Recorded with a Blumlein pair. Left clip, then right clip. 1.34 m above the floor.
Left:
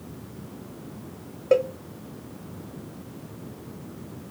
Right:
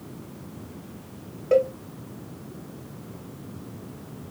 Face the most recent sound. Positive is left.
turn(degrees=15)